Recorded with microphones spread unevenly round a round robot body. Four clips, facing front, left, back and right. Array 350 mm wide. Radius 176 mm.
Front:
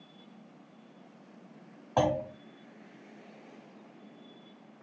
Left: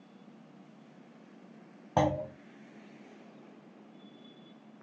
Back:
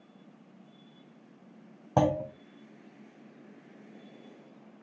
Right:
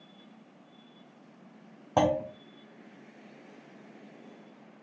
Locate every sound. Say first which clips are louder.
2.0 s a clunk: right 3 dB, back 1 dB; 170° right, 0.9 m